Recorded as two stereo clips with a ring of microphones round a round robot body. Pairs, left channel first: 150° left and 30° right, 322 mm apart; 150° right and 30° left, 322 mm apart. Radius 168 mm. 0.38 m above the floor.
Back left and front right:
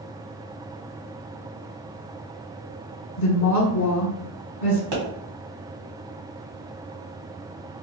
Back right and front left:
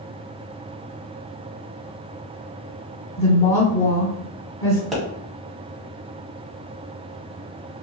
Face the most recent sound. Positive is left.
turn(degrees=-60)